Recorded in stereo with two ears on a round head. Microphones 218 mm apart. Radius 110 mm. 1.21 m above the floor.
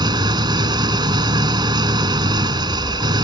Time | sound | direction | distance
0.0 | an engine running | 20° right (ahead or behind) | ?